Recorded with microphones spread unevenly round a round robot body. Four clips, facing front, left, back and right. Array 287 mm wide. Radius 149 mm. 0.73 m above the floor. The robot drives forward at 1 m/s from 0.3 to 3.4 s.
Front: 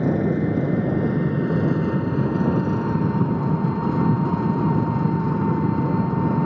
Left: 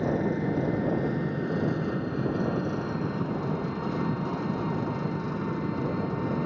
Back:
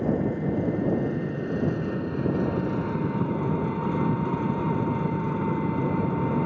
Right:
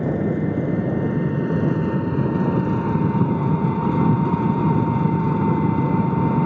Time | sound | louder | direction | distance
0.0 | an engine running | right 5 dB, front 5 dB | 30° right | ?